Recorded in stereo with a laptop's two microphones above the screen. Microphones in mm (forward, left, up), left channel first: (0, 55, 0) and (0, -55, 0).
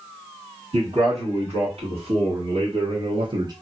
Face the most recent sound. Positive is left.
turn(degrees=-40)  # may be behind; listen again after turning